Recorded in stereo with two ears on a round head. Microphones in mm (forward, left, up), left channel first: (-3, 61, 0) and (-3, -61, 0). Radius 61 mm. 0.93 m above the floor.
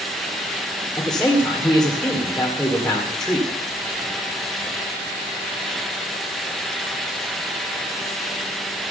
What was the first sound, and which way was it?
A man speaking, 5° left (ahead or behind).